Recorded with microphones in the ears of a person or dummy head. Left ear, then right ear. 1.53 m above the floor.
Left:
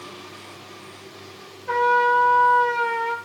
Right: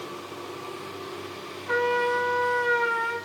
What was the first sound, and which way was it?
A trumpet, 85° left.